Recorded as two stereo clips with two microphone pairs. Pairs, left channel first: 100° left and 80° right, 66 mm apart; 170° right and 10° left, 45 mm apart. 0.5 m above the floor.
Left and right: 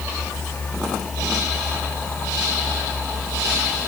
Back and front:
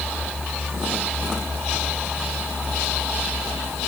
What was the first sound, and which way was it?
Only background noise.